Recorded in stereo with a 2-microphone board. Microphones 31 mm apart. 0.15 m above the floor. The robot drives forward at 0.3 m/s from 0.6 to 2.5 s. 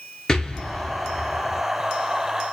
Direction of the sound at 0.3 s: 15° left (ahead or behind).